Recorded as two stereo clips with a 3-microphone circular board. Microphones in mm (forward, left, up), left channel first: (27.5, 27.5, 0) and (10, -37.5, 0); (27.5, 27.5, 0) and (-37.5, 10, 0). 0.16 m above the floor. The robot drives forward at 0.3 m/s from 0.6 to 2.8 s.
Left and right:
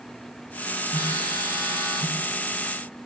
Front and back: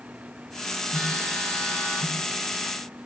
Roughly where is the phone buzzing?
Right.